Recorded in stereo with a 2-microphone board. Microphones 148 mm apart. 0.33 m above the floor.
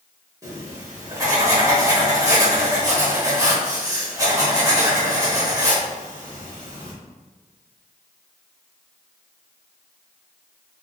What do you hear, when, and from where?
0.4 s writing: 25° right (ahead or behind), 1.0 m